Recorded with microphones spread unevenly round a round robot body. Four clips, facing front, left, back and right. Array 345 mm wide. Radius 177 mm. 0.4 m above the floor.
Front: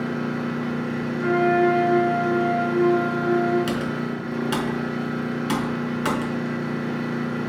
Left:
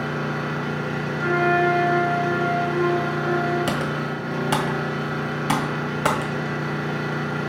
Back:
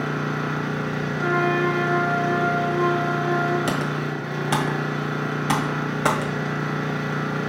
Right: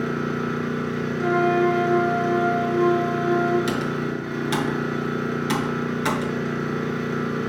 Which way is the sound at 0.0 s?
135° left.